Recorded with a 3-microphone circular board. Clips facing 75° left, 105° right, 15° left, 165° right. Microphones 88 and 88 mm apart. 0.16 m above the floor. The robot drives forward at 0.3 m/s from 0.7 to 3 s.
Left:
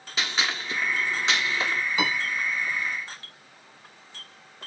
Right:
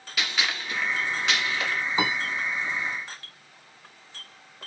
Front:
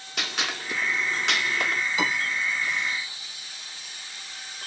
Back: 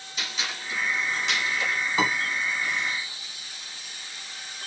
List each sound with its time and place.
0.2 s a gunshot: 10° left, 0.9 m; by 1.8 s 15° left, 0.6 m
2.0 s a piano: 150° right, 1.4 m